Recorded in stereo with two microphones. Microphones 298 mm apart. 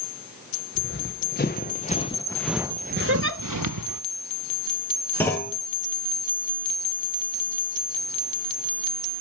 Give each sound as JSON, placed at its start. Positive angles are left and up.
{"t": 0.8, "sound": "running footsteps", "side_deg": 35, "distance_m": 1.6}
{"t": 3.1, "sound": "a giggle", "side_deg": -40, "distance_m": 0.8}
{"t": 5.2, "sound": "a clunk", "side_deg": 5, "distance_m": 1.4}